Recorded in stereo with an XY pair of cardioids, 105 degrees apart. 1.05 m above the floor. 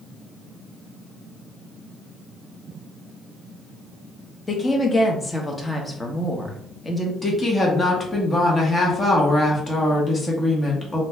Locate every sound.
4.5 s a woman speaking: 20° left, 1.0 m
7.2 s a woman speaking: 30° left, 1.1 m